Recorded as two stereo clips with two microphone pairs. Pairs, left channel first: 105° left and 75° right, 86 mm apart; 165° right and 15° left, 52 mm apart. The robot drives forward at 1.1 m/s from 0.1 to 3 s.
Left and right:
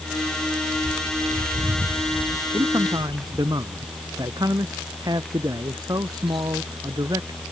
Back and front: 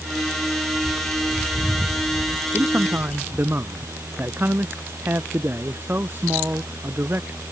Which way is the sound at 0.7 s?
80° right.